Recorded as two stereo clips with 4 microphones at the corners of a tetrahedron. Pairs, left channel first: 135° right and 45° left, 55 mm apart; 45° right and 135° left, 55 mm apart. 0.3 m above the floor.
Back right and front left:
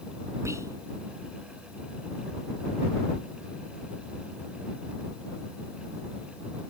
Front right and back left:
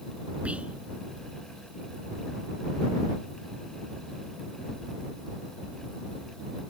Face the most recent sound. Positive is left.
turn(degrees=70)